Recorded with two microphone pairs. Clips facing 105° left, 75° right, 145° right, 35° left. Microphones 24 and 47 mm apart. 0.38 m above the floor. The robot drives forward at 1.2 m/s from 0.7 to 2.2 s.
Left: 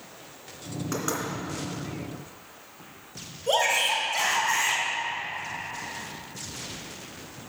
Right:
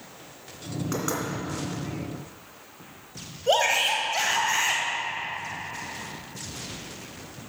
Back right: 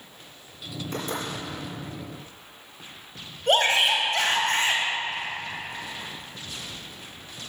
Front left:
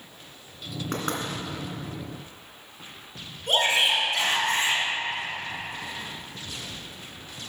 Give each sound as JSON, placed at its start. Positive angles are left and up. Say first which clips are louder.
{"t": 0.9, "sound": "knocking", "louder": "even, front left 2 dB", "azimuth_deg": 5, "distance_m": 2.5}
{"t": 3.5, "sound": "a shout", "louder": "right 1 dB, back right 2 dB", "azimuth_deg": -125, "distance_m": 2.0}